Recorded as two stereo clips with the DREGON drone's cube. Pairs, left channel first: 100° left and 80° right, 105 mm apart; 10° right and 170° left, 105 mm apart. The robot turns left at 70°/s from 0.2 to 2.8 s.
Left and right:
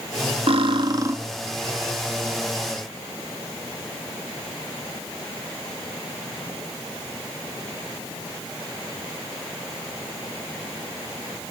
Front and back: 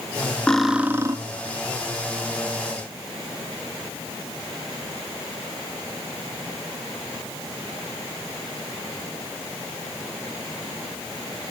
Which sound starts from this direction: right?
Cutlery clinking, at 0.5 s.